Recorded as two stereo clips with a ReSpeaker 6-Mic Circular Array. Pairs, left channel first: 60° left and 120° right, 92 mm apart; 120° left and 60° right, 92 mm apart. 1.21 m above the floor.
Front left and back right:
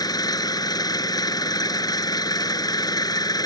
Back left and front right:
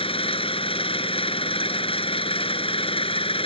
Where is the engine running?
105° left.